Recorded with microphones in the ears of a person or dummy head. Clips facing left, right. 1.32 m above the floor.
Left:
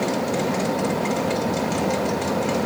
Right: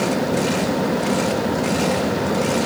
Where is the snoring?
No snoring in this recording.